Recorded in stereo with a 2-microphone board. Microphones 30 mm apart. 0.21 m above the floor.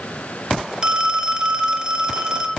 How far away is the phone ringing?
About 0.7 m.